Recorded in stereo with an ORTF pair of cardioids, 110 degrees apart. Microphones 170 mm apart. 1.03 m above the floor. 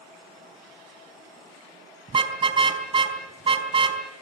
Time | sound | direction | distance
2.1 | a car horn | 30° right | 3.5 m